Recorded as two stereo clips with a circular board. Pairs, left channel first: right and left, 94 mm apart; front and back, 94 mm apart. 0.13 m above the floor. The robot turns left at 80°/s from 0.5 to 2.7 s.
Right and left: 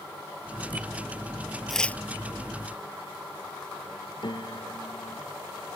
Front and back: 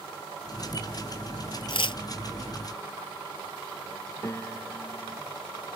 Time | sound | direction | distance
1.7 | tearing paper | straight ahead | ?
4.2 | a piano | 60° right | ?